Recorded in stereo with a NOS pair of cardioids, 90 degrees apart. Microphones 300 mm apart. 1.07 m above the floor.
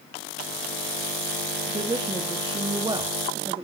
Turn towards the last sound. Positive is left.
turn(degrees=-15)